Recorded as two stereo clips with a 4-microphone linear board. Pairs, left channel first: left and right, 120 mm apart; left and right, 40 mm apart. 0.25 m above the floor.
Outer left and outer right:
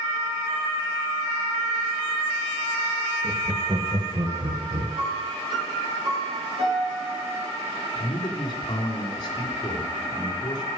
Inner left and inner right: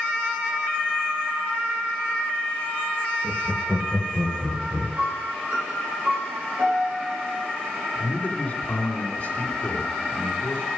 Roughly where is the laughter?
Centre.